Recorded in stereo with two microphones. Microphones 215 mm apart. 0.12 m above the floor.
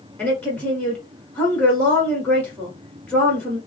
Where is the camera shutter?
I don't hear a camera shutter.